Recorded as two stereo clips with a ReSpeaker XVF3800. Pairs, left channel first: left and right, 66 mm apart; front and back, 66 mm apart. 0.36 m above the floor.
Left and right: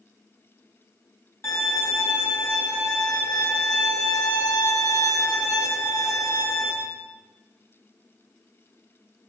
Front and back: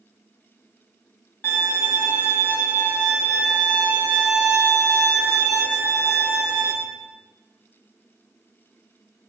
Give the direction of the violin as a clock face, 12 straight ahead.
10 o'clock.